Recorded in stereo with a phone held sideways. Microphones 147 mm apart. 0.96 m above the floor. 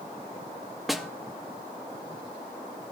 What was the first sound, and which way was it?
A snare drum, centre (ahead or behind).